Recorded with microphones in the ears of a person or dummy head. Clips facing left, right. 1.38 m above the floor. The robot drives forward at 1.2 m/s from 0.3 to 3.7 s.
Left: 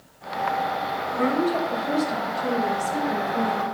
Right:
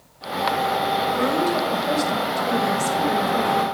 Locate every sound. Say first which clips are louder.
1.1 s a woman speaking: left 2 dB; 55° right (ahead or behind), 7 m; by 3.6 s 85° right, 6 m